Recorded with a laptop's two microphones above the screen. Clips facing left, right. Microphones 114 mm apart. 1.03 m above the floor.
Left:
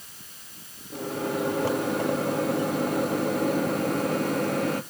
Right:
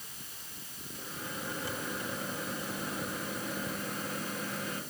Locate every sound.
0.9 s a microwave: 70° left (ahead or behind), 1.6 m